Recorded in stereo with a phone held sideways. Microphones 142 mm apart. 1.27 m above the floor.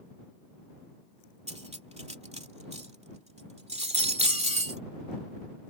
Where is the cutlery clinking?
50° right (ahead or behind).